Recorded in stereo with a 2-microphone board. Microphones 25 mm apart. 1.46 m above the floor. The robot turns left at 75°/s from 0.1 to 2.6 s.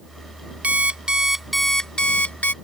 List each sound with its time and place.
0.6 s an alarm clock: 115° right; by 2.5 s 105° left